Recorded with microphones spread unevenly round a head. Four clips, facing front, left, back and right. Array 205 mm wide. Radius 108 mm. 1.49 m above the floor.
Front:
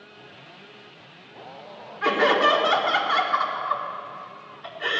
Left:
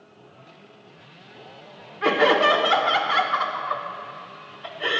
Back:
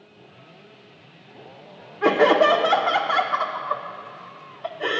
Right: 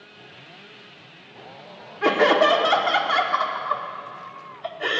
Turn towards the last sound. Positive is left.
turn(degrees=-160)